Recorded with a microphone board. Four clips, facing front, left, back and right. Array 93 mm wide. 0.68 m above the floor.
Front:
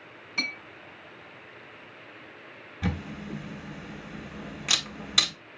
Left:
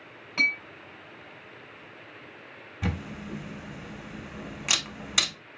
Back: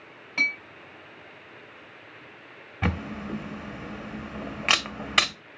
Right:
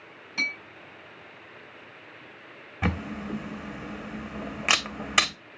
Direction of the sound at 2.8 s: 140° right.